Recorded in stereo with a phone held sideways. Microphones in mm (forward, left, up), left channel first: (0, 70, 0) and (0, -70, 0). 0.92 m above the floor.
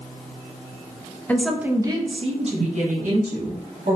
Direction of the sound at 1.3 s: 15° left (ahead or behind).